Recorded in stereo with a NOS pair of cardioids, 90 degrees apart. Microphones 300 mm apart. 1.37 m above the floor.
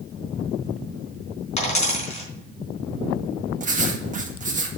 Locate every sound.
1.6 s a dropped coin: 25° left, 4 m
3.6 s writing: 25° right, 1.8 m